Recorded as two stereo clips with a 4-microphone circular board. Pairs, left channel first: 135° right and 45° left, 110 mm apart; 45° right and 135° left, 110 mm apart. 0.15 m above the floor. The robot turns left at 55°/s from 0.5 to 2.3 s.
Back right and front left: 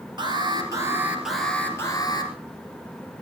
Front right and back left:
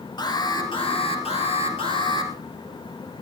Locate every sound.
0.2 s an alarm: straight ahead, 3.5 m; by 2.3 s 100° right, 3.5 m